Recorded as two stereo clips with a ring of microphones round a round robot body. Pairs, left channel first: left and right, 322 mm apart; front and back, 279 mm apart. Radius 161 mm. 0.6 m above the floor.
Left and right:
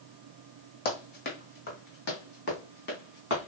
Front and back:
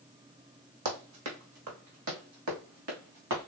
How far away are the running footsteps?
About 1.8 m.